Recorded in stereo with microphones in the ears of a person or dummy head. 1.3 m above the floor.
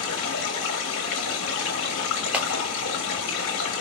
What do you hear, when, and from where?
0.0 s running water: 65° left (ahead or behind), 1.6 m
2.3 s a clap: 5° right (ahead or behind), 0.8 m